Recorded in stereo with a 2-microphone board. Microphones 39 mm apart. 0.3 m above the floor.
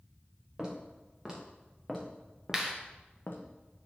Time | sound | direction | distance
0.6 | footsteps | 15° right (ahead or behind) | 2.5 m
2.5 | a clap | 15° right (ahead or behind) | 1.0 m